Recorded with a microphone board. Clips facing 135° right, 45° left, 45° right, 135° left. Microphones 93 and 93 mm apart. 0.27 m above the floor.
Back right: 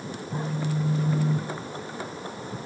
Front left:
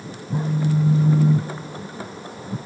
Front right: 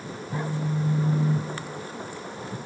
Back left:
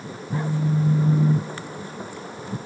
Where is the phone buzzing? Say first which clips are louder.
Front left 8 dB, back left 5 dB; 85° left, 0.5 m.